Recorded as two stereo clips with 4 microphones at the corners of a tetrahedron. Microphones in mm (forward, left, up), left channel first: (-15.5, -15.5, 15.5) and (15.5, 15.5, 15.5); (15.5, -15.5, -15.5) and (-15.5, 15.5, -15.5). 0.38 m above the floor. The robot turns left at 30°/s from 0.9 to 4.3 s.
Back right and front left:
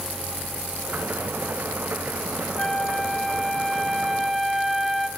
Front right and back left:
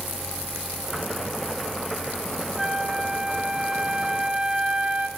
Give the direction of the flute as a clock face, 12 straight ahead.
6 o'clock.